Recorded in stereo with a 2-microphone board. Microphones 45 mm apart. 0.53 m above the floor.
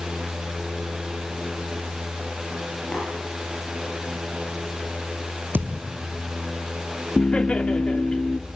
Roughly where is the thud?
Right.